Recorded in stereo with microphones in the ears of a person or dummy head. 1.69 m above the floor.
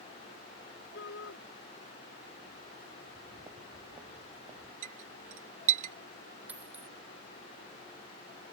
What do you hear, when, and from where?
0.9 s a shout: 65° left (ahead or behind)
3.0 s footsteps: 25° right (ahead or behind); by 4.7 s 20° right (ahead or behind)
4.8 s a clink: 50° right (ahead or behind)
6.5 s a dropped coin: 10° right (ahead or behind)